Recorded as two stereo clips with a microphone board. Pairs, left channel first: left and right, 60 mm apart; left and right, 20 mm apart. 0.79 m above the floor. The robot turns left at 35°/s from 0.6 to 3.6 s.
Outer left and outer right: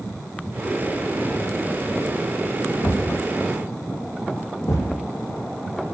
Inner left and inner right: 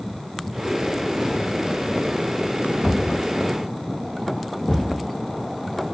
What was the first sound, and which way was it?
A thud, 90° left.